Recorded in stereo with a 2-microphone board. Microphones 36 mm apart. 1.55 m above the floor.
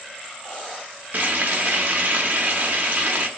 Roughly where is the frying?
Right.